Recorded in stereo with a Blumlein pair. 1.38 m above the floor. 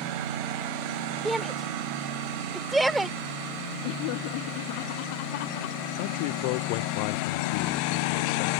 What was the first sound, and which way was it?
A shout, 10° right.